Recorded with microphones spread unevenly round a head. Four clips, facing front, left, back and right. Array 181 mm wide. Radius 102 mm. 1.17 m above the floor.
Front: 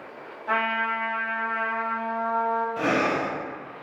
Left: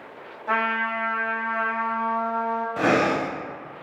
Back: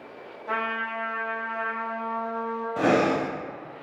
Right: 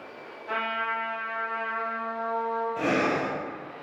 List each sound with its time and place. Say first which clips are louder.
0.5 s a trumpet: left 5 dB, front 4 dB; 50° left, 2 m
2.8 s breathing: left 6 dB, back 2 dB; 135° left, 0.6 m